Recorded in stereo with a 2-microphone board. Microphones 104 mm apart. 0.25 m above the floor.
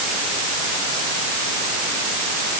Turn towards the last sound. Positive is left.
No sound to turn to.